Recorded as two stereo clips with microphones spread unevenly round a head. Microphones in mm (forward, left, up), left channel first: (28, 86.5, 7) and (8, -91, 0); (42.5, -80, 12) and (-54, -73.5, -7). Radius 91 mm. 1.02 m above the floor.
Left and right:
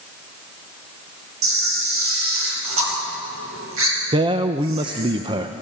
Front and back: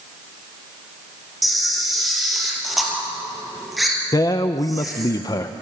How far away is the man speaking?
About 0.7 m.